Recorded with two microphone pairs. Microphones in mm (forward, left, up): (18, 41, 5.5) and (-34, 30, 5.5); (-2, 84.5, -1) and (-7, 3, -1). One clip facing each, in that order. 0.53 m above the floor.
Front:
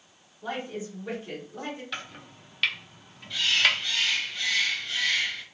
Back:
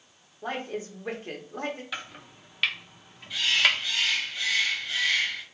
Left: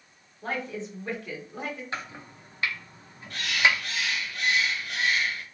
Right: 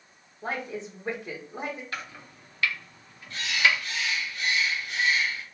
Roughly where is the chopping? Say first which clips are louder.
Even, left 2 dB; behind left.